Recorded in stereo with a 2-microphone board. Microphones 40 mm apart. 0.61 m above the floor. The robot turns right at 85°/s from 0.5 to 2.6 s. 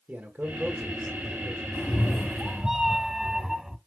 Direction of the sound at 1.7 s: 115° left.